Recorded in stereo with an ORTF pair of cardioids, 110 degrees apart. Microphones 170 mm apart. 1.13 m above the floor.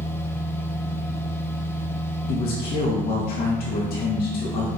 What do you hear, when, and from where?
0.0 s a machine running: 15° left, 0.8 m
2.3 s a man speaking: 70° left, 2.0 m